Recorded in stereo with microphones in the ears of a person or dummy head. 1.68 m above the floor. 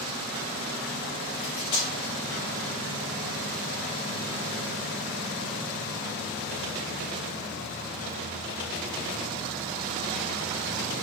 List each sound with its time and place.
1.4 s cutlery clinking: 35° left (ahead or behind), 1.8 m